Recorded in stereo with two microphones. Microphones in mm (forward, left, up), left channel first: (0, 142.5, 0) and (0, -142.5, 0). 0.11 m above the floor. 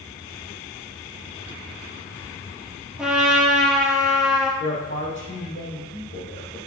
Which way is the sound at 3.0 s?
Centre (ahead or behind).